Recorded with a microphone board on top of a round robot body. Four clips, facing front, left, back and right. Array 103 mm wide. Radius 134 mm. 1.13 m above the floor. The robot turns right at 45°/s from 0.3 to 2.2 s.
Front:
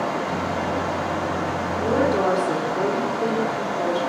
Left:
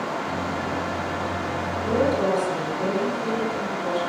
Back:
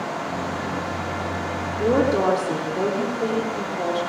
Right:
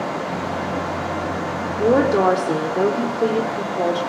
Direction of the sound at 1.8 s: 110° right.